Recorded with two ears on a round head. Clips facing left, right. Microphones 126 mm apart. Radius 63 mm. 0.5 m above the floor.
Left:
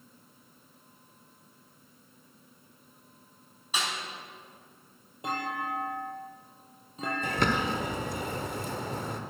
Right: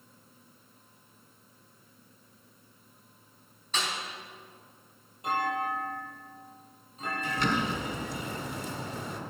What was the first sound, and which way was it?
A snare drum, 10° left (ahead or behind).